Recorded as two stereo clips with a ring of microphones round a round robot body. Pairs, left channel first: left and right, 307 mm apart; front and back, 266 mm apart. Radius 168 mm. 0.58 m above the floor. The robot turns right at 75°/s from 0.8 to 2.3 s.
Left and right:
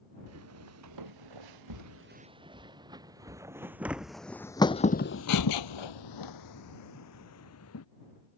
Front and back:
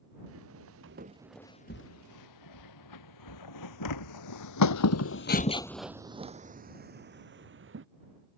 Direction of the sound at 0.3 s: 130° right.